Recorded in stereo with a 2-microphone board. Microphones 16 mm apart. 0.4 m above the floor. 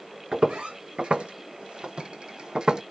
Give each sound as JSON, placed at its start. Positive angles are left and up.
{"t": 0.3, "sound": "footsteps", "side_deg": -65, "distance_m": 1.7}